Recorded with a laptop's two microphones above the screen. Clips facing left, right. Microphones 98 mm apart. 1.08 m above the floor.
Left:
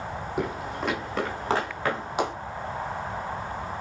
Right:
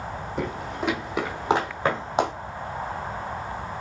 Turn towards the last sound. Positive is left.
turn(degrees=-30)  # may be behind; listen again after turning